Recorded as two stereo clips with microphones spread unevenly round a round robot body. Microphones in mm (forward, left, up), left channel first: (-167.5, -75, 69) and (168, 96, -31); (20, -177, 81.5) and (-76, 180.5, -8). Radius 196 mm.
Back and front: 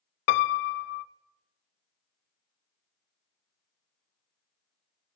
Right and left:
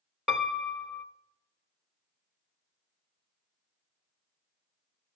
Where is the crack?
I don't hear a crack.